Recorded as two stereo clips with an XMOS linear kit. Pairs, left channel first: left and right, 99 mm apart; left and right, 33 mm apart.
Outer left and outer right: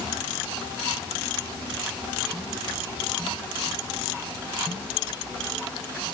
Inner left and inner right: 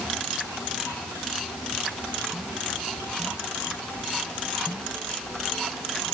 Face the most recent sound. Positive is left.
No sound to turn to.